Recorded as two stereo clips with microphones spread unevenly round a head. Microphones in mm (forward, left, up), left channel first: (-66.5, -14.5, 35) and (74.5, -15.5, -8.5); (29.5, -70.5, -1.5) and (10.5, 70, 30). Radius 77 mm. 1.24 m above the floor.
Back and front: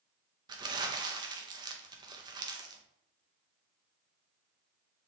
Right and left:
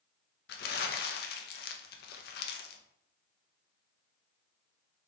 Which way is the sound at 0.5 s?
70° right.